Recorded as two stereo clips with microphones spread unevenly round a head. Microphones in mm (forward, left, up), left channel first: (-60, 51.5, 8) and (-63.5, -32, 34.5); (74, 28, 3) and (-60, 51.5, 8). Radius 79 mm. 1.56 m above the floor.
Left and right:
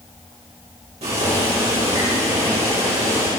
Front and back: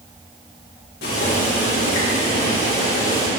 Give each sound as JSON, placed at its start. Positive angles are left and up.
{"t": 1.0, "sound": "boiling", "azimuth_deg": -45, "distance_m": 3.5}